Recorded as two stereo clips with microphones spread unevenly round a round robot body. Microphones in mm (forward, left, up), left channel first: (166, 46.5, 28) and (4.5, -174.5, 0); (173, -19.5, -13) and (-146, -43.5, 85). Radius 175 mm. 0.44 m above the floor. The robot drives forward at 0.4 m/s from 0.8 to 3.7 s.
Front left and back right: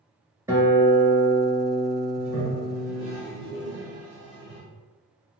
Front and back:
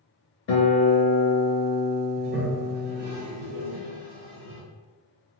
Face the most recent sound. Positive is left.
turn(degrees=145)